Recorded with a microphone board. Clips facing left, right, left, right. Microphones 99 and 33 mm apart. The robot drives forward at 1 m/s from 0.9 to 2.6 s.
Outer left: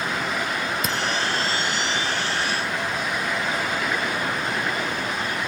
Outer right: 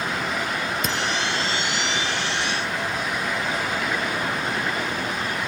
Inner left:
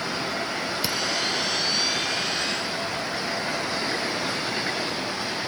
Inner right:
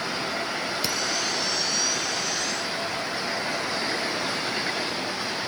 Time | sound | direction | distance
0.8 | a camera shutter | 5° left (ahead or behind) | 1.7 m